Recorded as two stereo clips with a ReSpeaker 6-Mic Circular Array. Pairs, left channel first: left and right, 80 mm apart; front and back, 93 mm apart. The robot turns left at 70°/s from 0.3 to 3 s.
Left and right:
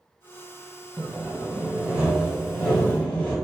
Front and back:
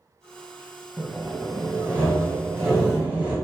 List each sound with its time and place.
1.0 s sawing: 80° right, 1.3 m; by 3.4 s 135° left, 1.3 m